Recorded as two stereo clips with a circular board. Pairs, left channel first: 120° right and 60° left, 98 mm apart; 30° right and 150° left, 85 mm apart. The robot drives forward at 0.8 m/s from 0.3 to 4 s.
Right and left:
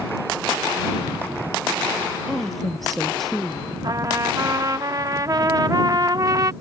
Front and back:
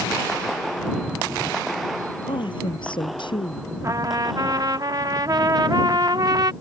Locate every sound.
2.3 s a woman speaking: 30° right
3.8 s a trumpet: 100° left; by 6.5 s 110° left